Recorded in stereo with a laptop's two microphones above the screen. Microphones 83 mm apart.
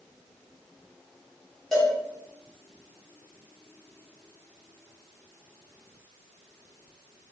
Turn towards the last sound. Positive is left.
turn(degrees=5)  # may be behind; listen again after turning